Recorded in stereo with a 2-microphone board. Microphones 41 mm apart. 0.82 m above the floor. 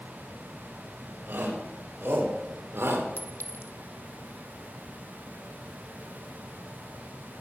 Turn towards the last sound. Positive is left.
turn(degrees=70)  # may be behind; listen again after turning